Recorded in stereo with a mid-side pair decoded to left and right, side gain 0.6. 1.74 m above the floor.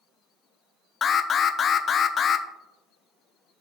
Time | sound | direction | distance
1.0 | an alarm | 40° left | 0.6 m